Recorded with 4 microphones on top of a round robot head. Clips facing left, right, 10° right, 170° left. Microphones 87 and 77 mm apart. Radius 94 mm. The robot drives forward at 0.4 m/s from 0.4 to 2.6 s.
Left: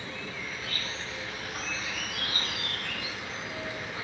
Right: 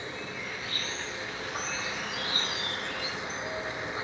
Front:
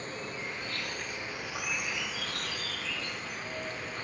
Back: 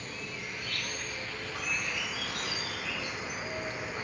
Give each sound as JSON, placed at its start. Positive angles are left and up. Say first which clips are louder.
{"t": 0.0, "sound": "an insect", "louder": "right 1 dB, front 2 dB", "azimuth_deg": -35, "distance_m": 1.2}